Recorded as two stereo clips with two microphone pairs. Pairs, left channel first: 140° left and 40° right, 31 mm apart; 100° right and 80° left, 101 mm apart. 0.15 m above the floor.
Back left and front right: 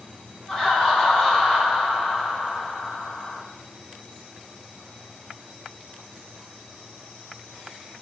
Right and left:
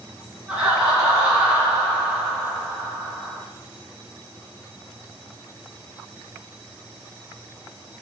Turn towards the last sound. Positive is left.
turn(degrees=140)